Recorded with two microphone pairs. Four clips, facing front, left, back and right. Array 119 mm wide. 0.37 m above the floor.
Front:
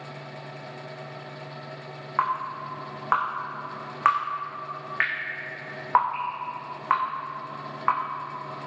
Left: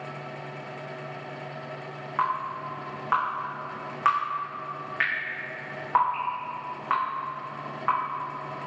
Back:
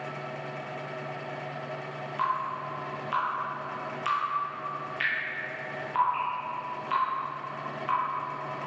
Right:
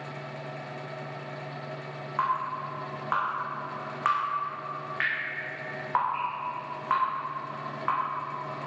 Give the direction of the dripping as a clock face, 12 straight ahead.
12 o'clock.